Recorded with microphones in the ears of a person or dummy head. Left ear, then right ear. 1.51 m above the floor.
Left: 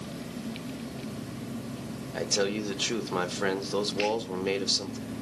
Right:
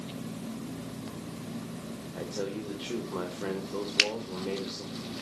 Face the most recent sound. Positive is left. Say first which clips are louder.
# right 4 dB
turn(degrees=-65)  # may be behind; listen again after turning